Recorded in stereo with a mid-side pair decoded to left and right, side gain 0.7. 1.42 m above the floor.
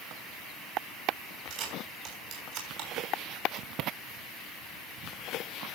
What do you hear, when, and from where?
1.5 s a camera shutter: 65° right, 6 m